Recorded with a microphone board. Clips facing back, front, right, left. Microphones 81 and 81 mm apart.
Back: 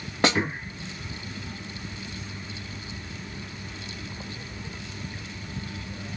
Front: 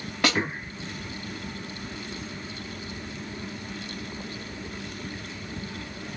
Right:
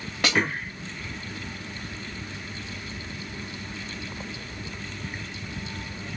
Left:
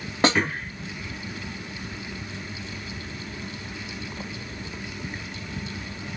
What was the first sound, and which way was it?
A snare drum, 130° left.